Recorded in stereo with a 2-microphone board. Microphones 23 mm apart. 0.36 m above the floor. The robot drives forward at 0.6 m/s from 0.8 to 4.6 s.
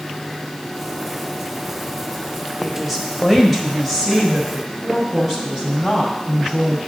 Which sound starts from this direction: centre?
A woman speaking, at 2.6 s.